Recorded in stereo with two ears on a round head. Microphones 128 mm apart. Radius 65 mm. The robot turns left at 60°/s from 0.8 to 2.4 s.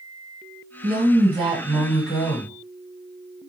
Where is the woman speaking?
120° right, 1.4 m; by 2.6 s 145° left, 1.4 m.